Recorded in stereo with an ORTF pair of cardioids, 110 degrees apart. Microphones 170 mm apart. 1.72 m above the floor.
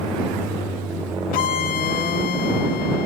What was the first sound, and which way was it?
A violin, 65° left.